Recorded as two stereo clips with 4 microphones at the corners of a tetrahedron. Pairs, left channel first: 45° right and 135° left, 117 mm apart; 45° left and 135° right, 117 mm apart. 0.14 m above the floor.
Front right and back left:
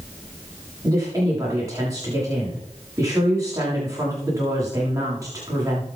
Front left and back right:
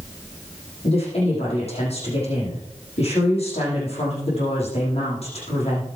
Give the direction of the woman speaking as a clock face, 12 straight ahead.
10 o'clock.